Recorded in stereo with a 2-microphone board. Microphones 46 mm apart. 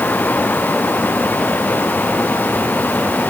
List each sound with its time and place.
Only background noise.